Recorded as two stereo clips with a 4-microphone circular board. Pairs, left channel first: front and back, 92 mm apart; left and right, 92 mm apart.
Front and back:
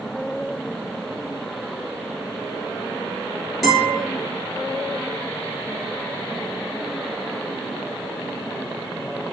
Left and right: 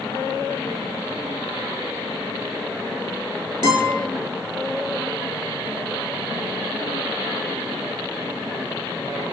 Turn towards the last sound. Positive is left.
turn(degrees=-90)